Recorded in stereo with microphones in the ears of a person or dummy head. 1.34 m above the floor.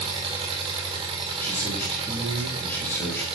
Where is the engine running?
25° right (ahead or behind), 1.2 m.